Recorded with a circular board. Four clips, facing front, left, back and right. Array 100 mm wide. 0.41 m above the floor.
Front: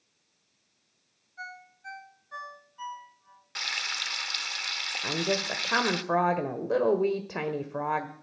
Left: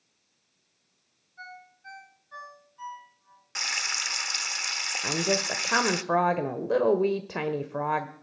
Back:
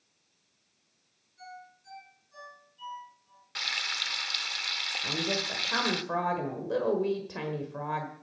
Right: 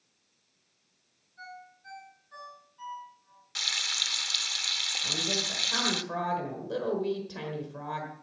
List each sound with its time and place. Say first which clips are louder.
1.4 s a ringtone: left 1 dB, front 3 dB; 15° left, 3.5 m
3.5 s frying: left 5 dB, front 1 dB; 80° left, 1.1 m
5.0 s a woman speaking: left 8 dB, front 4 dB; 60° left, 1.3 m